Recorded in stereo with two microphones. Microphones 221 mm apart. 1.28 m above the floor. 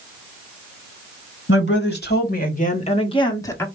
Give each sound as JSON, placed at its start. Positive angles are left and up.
{"t": 1.5, "sound": "a woman speaking", "side_deg": 60, "distance_m": 2.0}